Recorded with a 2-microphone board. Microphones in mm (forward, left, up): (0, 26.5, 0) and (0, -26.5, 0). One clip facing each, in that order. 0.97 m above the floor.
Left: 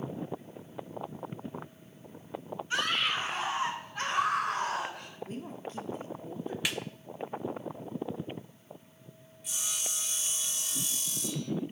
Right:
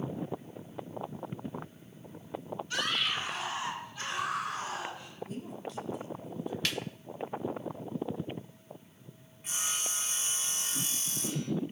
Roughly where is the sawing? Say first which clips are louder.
Right 3 dB; right.